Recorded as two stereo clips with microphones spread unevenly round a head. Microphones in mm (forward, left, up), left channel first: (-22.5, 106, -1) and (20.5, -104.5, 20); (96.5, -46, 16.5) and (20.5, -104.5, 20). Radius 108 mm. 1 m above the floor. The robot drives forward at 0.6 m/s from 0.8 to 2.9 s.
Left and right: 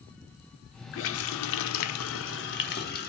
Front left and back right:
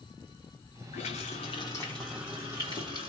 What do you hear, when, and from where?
0.9 s a running tap: 65° left, 0.6 m; by 3.1 s 150° left, 1.1 m